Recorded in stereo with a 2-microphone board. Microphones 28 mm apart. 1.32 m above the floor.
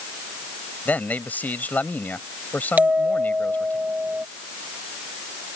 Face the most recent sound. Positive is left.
turn(degrees=-75)  # may be behind; listen again after turning